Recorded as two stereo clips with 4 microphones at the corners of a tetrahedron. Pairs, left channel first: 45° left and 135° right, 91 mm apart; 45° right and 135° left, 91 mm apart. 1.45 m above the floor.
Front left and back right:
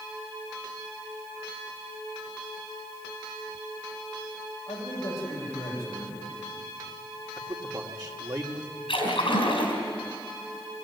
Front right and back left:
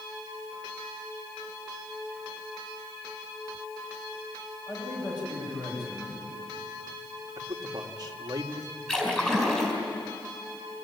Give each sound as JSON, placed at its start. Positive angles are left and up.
{"t": 4.7, "sound": "a man speaking", "azimuth_deg": -5, "distance_m": 8.5}
{"t": 7.4, "sound": "a man speaking", "azimuth_deg": 180, "distance_m": 2.0}
{"t": 8.9, "sound": "a splash", "azimuth_deg": 35, "distance_m": 5.0}